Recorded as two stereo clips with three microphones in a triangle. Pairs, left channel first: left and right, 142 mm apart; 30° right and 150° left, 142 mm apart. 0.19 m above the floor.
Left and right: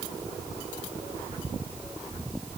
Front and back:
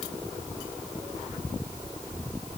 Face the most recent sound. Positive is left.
No sound to turn to.